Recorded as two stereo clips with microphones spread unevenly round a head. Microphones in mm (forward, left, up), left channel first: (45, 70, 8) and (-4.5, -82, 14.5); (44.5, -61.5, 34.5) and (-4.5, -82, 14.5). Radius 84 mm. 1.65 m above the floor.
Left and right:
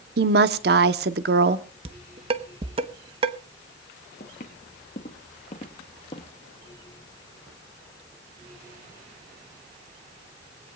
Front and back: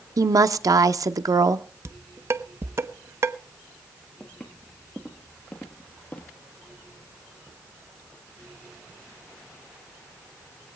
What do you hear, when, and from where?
0.2 s a woman speaking: 140° right, 1.0 m
1.9 s dishes clattering: 120° right, 0.9 m
4.2 s footsteps: 85° left, 2 m; by 6.3 s 25° left, 2 m